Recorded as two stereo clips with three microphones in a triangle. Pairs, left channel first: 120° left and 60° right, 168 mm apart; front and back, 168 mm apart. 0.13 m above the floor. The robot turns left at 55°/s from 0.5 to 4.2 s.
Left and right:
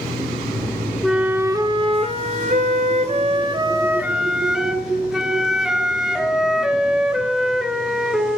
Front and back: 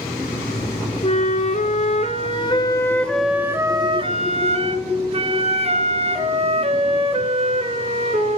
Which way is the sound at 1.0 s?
30° left.